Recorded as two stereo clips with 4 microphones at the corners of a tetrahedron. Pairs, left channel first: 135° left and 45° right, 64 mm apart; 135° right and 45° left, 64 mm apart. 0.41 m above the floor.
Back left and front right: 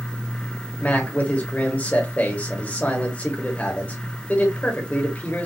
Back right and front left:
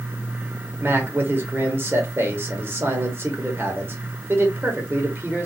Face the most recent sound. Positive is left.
turn(degrees=80)